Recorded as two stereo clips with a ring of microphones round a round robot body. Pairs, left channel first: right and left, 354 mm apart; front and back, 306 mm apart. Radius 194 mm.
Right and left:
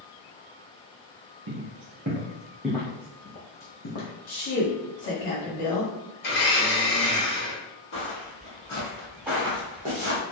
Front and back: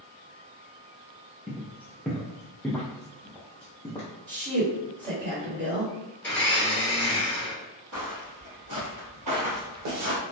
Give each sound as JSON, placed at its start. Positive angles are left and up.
{"t": 1.5, "sound": "footsteps", "azimuth_deg": 100, "distance_m": 1.0}
{"t": 4.3, "sound": "a woman speaking", "azimuth_deg": -115, "distance_m": 1.8}
{"t": 6.2, "sound": "a blender", "azimuth_deg": -85, "distance_m": 1.5}
{"t": 7.9, "sound": "footsteps", "azimuth_deg": -145, "distance_m": 1.7}